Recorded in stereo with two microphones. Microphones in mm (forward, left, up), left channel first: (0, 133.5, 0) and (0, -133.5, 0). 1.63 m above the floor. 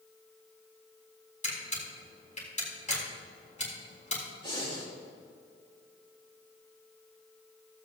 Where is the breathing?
20° left (ahead or behind), 3 m.